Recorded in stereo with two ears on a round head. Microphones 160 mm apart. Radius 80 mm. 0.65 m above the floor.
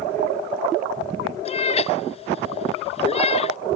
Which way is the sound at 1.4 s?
35° left (ahead or behind).